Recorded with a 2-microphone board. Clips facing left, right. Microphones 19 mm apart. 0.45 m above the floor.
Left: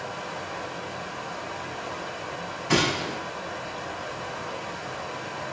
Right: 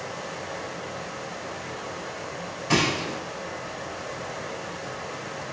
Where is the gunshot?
Centre (ahead or behind), 3 m.